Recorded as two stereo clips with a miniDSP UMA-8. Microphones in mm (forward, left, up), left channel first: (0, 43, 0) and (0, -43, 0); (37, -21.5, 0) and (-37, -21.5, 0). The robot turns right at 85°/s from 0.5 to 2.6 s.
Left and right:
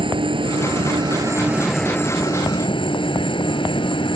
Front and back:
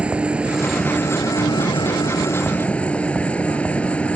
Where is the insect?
105° right; by 4.2 s 75° left.